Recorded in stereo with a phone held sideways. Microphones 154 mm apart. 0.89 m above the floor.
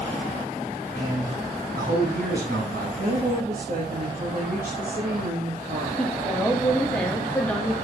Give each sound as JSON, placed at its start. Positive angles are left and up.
{"t": 0.9, "sound": "a man speaking", "side_deg": -65, "distance_m": 4.5}
{"t": 3.0, "sound": "a woman speaking", "side_deg": -60, "distance_m": 1.8}
{"t": 6.0, "sound": "a woman speaking", "side_deg": 5, "distance_m": 1.7}